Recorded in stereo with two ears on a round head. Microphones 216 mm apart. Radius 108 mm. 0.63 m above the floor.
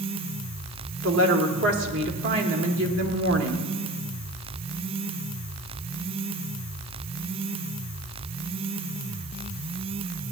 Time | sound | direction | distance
1.0 | a woman speaking | 55° right (ahead or behind) | 1.1 m